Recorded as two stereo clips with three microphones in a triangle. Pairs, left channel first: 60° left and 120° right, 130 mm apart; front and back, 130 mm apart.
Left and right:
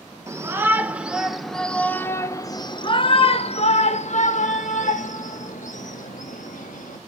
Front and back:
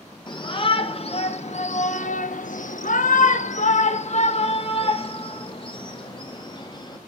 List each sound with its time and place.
0.3 s a shout: 50° right, 1.5 m; by 7.0 s 55° left, 2.5 m